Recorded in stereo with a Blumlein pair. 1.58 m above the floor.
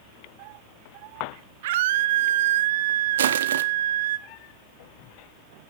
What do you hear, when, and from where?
1.6 s a scream: 55° right, 1.3 m
3.2 s crushing: 65° right, 1.0 m